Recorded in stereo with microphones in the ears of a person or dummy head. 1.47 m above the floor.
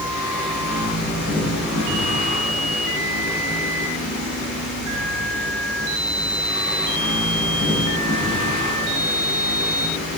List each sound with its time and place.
0.0 s a fan: 75° left (ahead or behind), 5 m